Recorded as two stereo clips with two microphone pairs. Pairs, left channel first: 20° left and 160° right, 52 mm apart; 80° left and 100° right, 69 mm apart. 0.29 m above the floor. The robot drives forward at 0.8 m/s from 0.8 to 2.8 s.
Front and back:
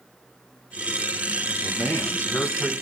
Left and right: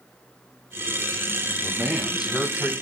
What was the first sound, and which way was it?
A man speaking, 15° right.